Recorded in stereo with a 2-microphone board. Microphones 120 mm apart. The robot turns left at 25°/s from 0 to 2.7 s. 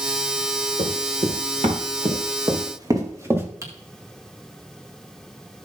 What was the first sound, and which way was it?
Running footsteps, 80° right.